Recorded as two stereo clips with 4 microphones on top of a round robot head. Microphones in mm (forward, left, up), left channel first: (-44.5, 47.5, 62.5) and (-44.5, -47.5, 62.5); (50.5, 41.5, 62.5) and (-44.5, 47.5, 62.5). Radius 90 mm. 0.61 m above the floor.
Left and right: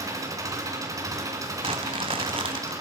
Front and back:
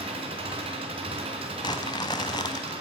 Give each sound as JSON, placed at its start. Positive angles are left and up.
{"t": 0.0, "sound": "an engine running", "azimuth_deg": -145, "distance_m": 3.0}
{"t": 1.6, "sound": "crumpling", "azimuth_deg": -60, "distance_m": 0.5}